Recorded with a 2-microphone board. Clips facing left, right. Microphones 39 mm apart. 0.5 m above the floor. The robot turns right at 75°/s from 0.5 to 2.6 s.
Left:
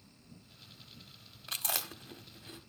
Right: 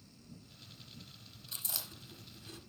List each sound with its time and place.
1.5 s chewing: 85° left, 0.9 m; by 2.6 s 15° left (ahead or behind), 0.9 m